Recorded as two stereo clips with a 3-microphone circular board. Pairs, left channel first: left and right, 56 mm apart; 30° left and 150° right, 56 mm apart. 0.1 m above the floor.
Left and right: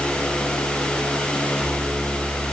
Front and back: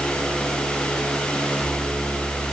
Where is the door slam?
No door slam in this recording.